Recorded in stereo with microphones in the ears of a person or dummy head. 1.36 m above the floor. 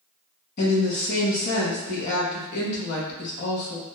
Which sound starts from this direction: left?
A woman speaking, at 0.6 s.